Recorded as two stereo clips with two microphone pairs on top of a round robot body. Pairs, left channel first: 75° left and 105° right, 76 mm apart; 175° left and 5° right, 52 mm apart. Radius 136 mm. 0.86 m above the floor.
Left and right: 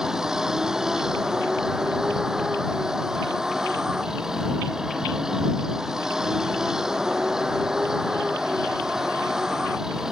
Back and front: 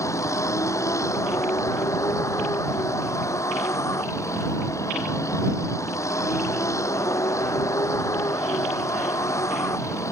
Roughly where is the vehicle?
Behind.